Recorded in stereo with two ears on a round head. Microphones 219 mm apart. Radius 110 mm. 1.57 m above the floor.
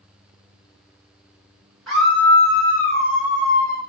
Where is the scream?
Centre (ahead or behind), 3 m; by 3.8 s 40° left (ahead or behind), 3 m.